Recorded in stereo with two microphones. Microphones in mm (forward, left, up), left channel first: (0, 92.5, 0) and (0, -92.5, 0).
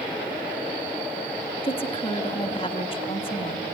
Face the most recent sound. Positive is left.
turn(degrees=30)  # may be behind; listen again after turning